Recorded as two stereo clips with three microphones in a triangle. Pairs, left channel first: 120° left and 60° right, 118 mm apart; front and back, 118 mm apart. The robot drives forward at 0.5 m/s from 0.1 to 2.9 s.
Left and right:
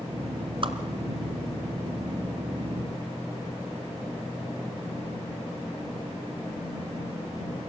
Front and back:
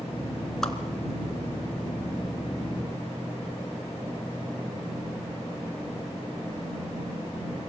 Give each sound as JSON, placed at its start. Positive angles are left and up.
{"t": 0.6, "sound": "a whoosh", "azimuth_deg": -85, "distance_m": 1.7}